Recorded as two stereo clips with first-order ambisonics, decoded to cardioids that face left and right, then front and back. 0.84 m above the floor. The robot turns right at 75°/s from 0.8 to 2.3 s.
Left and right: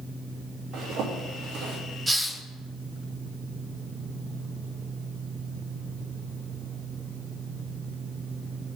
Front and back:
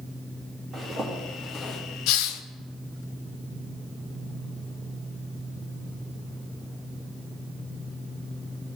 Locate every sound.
0.7 s a zipper: 130° right, 3 m; by 1.8 s 55° right, 3 m
2.1 s a hiss: 10° right, 0.7 m; by 2.4 s 5° left, 0.7 m